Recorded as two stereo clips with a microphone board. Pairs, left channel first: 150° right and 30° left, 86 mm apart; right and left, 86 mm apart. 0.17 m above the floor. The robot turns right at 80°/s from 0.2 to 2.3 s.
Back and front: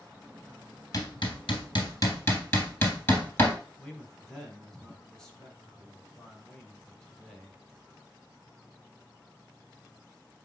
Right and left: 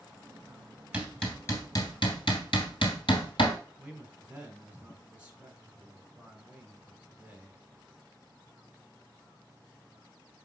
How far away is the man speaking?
About 1.5 m.